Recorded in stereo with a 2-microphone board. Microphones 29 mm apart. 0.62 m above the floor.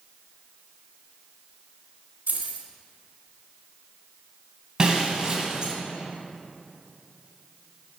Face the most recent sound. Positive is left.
turn(degrees=-25)  # may be behind; listen again after turning